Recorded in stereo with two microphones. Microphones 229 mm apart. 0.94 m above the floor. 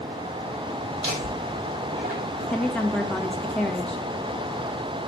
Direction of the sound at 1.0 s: 50° right (ahead or behind).